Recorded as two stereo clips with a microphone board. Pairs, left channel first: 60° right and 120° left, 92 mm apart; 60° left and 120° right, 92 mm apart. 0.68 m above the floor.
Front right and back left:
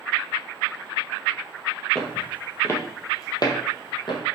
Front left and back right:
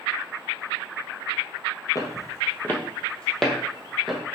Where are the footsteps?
20° left, 1.0 m; by 4.2 s 35° right, 1.5 m.